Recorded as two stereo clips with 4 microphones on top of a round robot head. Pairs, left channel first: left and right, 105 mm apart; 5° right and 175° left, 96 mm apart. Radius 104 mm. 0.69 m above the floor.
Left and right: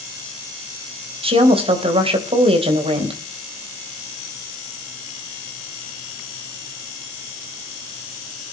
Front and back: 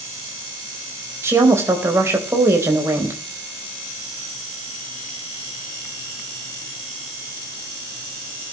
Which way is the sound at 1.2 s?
120° right.